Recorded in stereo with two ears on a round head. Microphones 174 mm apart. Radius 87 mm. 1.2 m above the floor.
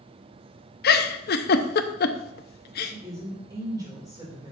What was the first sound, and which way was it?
A giggle, 55° left (ahead or behind).